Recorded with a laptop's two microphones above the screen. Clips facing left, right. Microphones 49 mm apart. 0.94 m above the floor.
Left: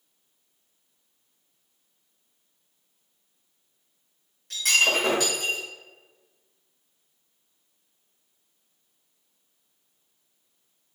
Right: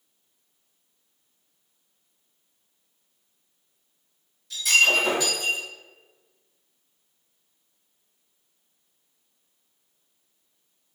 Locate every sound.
4.5 s breaking glass: 60° left (ahead or behind), 2 m